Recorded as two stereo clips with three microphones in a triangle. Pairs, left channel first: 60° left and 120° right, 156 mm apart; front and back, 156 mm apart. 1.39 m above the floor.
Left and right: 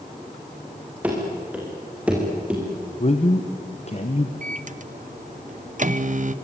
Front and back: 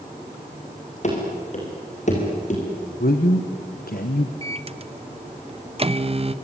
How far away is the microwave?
About 0.8 m.